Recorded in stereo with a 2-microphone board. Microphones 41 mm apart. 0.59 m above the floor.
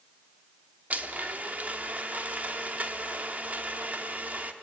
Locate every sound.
0.9 s a blender: 35° right (ahead or behind), 1.2 m